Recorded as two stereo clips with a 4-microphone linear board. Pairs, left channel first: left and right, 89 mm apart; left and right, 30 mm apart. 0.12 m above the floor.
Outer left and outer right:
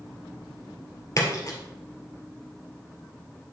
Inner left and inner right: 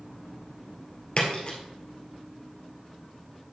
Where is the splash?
40° left (ahead or behind), 2 m.